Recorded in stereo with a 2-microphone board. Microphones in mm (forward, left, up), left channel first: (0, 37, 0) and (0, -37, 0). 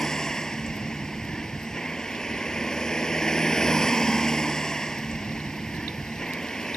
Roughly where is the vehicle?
Centre.